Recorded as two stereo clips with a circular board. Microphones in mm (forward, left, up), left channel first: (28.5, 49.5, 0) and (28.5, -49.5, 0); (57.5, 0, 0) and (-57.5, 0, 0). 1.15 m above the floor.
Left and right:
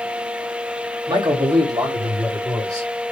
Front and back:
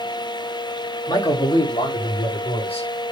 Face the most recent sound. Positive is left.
turn(degrees=-35)